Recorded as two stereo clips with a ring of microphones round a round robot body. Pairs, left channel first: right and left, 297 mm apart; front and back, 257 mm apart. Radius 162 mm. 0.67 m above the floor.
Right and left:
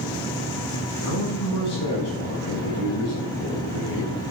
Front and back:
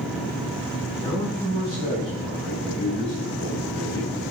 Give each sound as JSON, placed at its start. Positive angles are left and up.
{"t": 1.0, "sound": "a man speaking", "azimuth_deg": -65, "distance_m": 6.5}